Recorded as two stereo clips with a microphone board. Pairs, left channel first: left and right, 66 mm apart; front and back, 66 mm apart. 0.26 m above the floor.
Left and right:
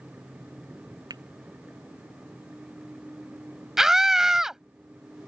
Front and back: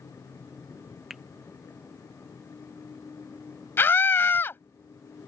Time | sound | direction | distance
1.1 | a finger snap | 95° right | ?
3.8 | a scream | 15° right | ?